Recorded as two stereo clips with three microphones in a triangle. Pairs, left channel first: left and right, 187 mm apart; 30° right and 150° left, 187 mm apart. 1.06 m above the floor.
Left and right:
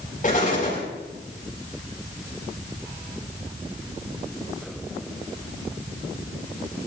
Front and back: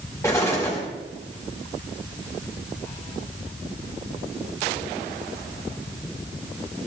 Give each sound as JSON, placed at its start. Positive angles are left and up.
{"t": 0.2, "sound": "an explosion", "azimuth_deg": 45, "distance_m": 4.5}